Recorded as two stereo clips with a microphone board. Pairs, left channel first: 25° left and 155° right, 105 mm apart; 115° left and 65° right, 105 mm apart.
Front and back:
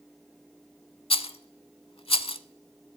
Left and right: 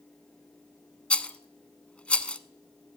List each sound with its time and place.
1.1 s a rattle: 35° left, 0.5 m